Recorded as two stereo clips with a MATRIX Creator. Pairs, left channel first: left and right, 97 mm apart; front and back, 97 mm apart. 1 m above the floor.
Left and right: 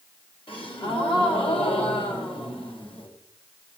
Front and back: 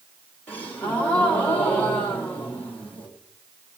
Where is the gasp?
70° left, 3 m.